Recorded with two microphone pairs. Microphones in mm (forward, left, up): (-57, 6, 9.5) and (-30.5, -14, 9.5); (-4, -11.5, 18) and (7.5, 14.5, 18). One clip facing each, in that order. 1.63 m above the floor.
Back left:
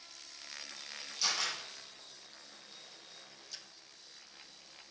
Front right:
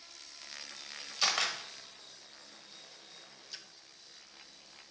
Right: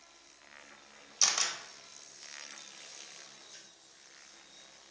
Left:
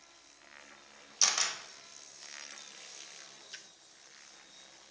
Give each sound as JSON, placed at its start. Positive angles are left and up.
{"t": 1.2, "sound": "a camera shutter", "azimuth_deg": -15, "distance_m": 1.3}
{"t": 3.5, "sound": "a splash", "azimuth_deg": 40, "distance_m": 0.6}